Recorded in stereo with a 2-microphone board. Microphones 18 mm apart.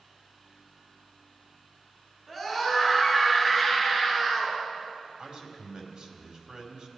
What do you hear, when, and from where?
2.3 s a scream: 20° right (ahead or behind), 7 m
5.2 s a man speaking: 55° right (ahead or behind), 2.5 m